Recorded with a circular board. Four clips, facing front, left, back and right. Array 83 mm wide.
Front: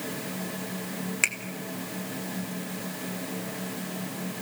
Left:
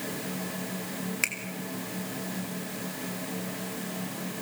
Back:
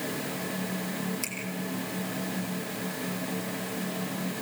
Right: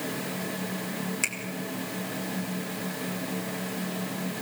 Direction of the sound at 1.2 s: 15° left.